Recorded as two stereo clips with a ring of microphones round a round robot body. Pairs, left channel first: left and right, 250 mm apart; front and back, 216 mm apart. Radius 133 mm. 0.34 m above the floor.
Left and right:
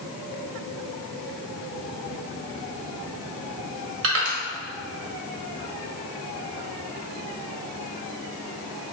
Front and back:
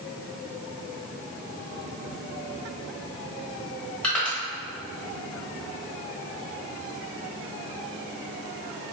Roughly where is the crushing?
Right.